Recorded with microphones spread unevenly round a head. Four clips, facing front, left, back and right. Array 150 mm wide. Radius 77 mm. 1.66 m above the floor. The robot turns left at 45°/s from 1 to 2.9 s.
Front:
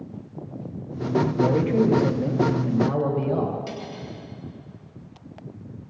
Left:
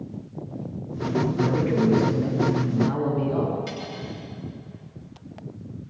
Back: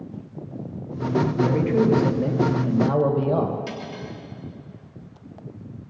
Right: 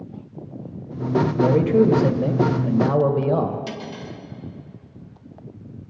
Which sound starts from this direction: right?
Cutlery clinking, at 3.7 s.